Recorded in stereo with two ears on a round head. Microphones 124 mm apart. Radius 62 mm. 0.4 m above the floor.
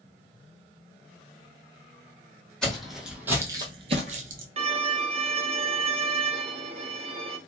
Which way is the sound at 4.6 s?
40° right (ahead or behind).